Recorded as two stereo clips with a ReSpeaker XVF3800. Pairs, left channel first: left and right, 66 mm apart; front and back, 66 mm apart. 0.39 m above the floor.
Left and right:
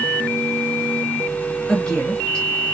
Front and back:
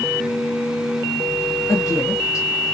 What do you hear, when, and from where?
1.7 s a woman speaking: 15° left, 2.0 m